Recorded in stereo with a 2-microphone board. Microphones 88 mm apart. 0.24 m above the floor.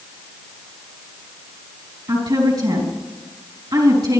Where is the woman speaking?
55° right (ahead or behind), 4 m.